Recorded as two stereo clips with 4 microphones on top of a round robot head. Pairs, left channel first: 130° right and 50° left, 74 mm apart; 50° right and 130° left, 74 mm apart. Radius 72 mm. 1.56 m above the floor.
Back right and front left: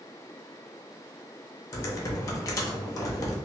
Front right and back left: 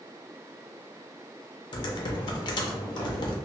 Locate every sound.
1.7 s typing on a keyboard: 80° right, 0.5 m